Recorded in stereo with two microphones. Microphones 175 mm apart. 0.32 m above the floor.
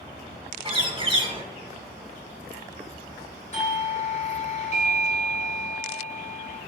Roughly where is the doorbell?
Left.